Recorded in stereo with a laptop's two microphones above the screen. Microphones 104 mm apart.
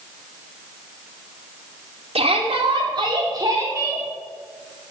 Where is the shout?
65° right (ahead or behind), 3 m; by 4.0 s 25° right (ahead or behind), 3.5 m.